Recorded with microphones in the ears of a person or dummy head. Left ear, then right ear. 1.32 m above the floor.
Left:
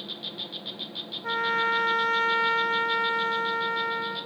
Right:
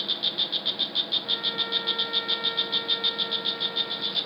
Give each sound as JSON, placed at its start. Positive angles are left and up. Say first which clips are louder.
{"t": 0.0, "sound": "an insect", "louder": "right 9 dB", "side_deg": -65}
{"t": 1.2, "sound": "a trumpet", "louder": "left 2 dB", "side_deg": 60}